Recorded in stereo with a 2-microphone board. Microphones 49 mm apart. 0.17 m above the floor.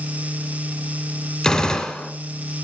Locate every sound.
1.4 s a gunshot: 10° left (ahead or behind), 1.0 m